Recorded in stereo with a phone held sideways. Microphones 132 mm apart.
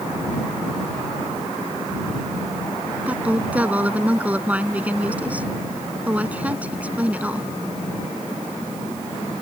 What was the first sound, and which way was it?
A woman speaking, 10° right (ahead or behind).